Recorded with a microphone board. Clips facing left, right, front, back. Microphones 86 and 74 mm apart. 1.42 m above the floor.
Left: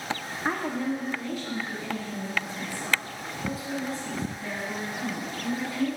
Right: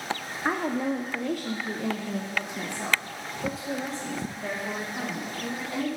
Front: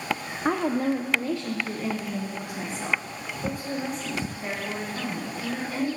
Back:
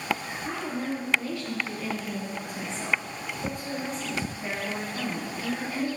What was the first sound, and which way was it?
A woman speaking, 10° right.